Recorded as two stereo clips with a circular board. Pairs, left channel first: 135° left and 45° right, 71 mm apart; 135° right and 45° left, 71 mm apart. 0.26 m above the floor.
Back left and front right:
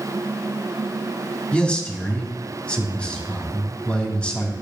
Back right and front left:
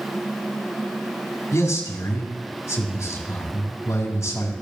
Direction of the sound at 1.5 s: 155° right.